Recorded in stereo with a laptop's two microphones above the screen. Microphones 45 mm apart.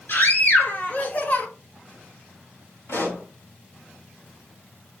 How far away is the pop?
About 3 m.